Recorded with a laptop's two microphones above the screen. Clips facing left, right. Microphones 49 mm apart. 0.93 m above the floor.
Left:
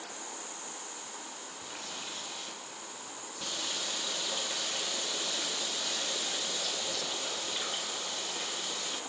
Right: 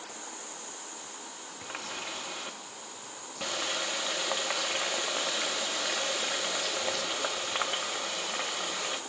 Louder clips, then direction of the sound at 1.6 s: Right 6 dB; 75° right (ahead or behind).